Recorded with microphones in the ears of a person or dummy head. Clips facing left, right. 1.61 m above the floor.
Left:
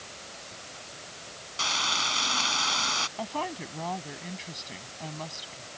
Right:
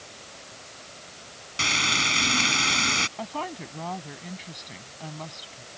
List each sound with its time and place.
1.6 s frying: 30° right (ahead or behind)
3.2 s a woman speaking: centre (ahead or behind)